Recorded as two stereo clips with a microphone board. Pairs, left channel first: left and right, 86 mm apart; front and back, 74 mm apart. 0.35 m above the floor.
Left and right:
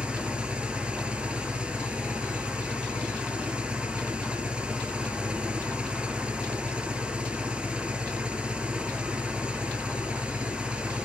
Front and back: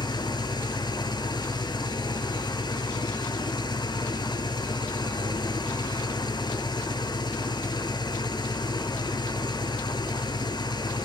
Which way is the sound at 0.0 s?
10° right.